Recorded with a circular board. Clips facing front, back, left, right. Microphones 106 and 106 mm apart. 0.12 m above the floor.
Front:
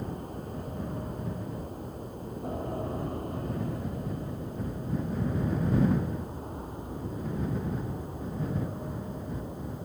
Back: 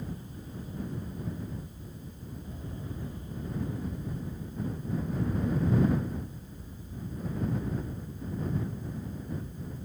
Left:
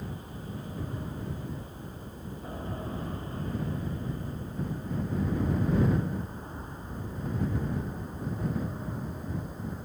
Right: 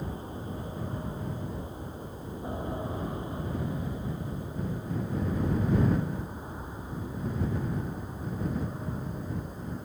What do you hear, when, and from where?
0.0 s an aircraft: 25° right; by 9.8 s straight ahead